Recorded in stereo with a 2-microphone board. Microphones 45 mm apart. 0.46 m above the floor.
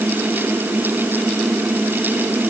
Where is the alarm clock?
I don't hear an alarm clock.